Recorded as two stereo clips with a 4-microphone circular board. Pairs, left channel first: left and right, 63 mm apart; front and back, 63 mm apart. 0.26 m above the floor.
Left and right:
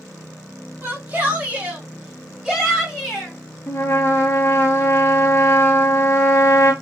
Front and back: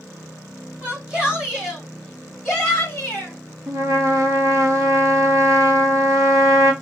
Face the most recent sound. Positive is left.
turn(degrees=140)